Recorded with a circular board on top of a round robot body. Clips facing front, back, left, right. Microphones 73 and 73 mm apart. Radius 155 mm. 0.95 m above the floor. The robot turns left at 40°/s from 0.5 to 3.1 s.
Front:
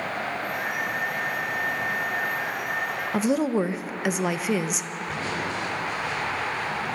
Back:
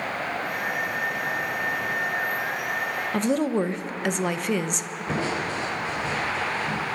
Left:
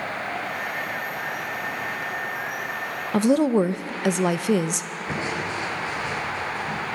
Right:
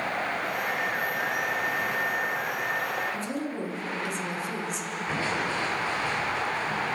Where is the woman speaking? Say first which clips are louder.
Front 1 dB, left 13 dB; 85° left, 0.8 m.